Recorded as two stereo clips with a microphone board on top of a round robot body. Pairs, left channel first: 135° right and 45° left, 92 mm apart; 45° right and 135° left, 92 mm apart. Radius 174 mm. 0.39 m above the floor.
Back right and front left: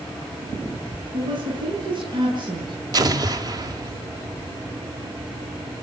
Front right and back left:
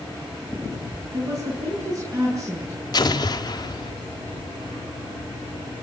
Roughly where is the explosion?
Ahead.